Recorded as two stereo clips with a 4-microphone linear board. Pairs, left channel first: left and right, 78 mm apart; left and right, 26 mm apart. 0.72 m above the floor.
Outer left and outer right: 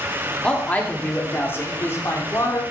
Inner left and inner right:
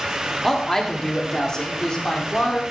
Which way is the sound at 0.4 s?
15° left (ahead or behind).